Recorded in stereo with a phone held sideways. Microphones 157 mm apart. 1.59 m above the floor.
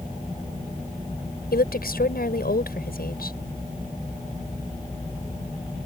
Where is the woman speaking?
80° left.